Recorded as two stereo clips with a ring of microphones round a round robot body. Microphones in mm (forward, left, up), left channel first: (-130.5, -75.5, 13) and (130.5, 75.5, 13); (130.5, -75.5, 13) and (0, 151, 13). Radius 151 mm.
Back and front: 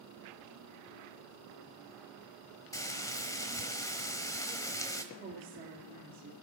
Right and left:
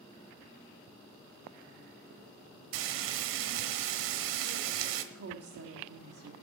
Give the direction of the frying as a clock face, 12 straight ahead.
8 o'clock.